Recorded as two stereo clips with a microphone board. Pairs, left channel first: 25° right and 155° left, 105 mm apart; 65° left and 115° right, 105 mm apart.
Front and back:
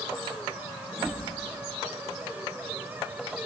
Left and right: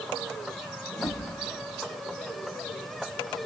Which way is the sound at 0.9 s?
70° left.